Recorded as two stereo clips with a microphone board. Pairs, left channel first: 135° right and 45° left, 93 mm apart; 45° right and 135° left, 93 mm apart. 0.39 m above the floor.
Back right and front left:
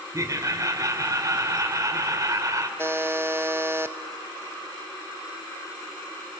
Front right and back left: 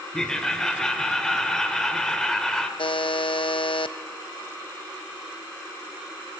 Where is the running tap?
I don't hear a running tap.